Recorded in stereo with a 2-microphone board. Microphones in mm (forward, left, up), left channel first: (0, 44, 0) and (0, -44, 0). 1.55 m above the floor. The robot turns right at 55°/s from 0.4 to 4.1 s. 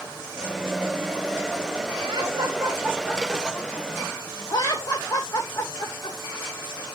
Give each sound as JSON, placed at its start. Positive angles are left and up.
{"t": 2.0, "sound": "laughter", "side_deg": -75, "distance_m": 2.0}